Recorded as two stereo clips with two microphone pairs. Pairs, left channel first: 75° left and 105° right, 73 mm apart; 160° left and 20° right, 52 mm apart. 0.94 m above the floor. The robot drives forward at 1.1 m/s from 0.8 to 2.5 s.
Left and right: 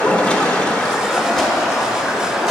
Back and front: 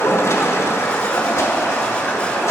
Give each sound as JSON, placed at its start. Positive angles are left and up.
{"t": 0.0, "sound": "running water", "azimuth_deg": 155, "distance_m": 1.2}